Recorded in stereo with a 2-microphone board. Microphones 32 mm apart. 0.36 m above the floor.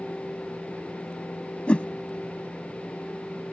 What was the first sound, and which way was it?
A whoosh, 40° left (ahead or behind).